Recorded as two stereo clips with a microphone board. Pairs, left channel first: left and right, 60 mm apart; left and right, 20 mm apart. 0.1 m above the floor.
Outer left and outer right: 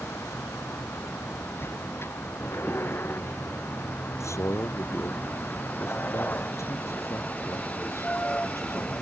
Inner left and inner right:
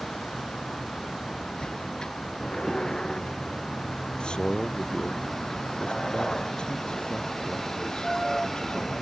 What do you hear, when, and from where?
0.0 s a vehicle: 50° left (ahead or behind); by 9.0 s 25° left (ahead or behind)
4.2 s a man speaking: 55° left (ahead or behind)